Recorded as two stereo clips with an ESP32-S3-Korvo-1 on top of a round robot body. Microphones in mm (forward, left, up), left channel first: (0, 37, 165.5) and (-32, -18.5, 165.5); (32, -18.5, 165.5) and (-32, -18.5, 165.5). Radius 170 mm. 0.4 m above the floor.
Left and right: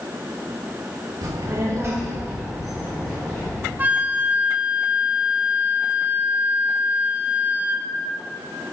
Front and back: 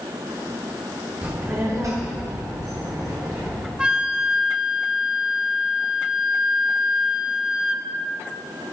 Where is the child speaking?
115° right, 1.6 m; by 3.7 s 135° left, 3 m.